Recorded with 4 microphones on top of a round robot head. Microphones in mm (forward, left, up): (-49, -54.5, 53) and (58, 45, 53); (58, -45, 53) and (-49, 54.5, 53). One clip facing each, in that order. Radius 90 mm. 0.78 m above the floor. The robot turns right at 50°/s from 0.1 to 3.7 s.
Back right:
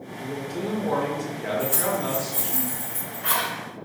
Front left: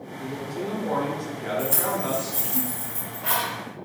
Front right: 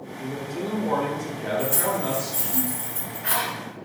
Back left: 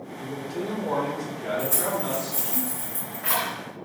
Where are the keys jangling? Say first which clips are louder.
Back right 1 dB, front right 3 dB; 75° left, 2.0 m; by 3.5 s 170° left, 2.0 m.